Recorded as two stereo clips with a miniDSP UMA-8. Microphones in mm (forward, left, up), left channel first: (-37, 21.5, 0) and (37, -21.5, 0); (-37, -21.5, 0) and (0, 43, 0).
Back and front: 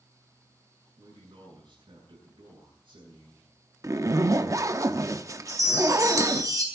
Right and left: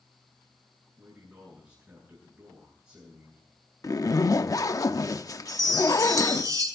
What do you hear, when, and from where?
1.0 s a man speaking: straight ahead, 8.5 m
3.8 s a zipper: 80° right, 0.7 m
5.5 s a chime: 20° left, 4 m